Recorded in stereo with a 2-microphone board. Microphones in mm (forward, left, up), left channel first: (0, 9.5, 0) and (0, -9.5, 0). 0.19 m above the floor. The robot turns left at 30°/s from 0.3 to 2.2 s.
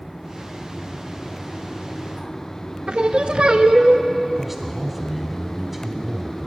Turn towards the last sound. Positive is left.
turn(degrees=-15)  # may be behind; listen again after turning